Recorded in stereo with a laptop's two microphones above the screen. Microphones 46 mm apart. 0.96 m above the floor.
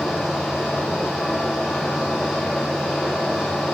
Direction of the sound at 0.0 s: Centre (ahead or behind).